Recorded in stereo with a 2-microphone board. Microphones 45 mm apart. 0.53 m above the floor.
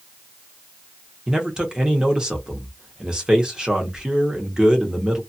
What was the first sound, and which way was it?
A man speaking, 15° right (ahead or behind).